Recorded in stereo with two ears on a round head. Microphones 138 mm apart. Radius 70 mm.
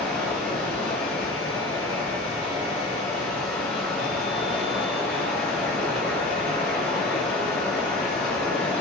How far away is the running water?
About 1.7 m.